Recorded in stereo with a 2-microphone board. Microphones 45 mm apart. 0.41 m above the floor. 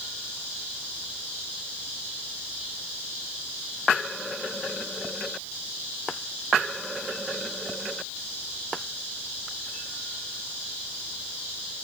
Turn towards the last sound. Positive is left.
No sound to turn to.